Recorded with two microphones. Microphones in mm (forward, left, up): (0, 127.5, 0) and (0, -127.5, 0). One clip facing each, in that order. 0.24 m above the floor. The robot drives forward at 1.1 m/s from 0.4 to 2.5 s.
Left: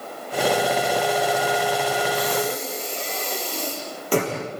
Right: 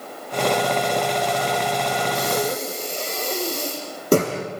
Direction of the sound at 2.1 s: 50° right (ahead or behind).